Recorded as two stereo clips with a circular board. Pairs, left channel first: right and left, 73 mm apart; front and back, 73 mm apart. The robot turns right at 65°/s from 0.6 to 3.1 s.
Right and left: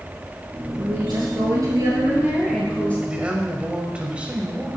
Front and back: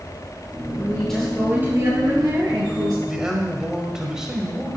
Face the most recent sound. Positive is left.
turn(degrees=120)